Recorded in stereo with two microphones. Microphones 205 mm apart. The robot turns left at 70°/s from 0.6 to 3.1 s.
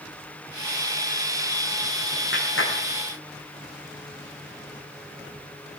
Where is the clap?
65° left (ahead or behind), 7 m; by 2.8 s 80° left, 7 m.